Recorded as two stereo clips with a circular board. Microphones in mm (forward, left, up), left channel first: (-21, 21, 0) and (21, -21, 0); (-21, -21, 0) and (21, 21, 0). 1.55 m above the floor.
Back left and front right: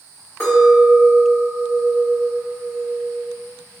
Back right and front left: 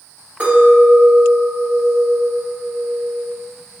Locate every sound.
0.4 s a clink: 100° left, 1.5 m